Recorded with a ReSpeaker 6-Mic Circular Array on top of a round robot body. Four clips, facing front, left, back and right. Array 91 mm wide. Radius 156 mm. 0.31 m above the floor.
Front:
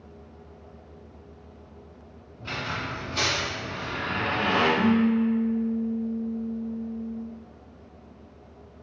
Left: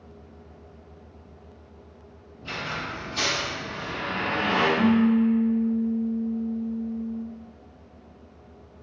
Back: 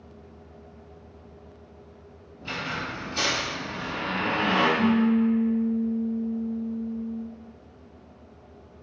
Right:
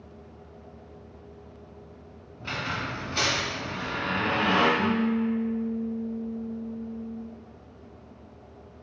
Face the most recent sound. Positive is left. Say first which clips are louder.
# left 5 dB, even
turn(degrees=20)